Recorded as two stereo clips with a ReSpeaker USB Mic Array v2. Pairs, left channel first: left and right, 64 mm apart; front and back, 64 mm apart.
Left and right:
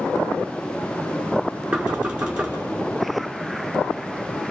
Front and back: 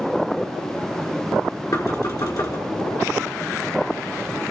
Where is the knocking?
15° right, 5 m.